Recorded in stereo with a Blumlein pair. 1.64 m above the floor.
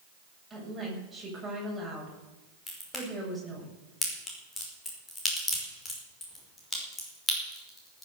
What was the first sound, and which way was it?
A woman speaking, 5° right.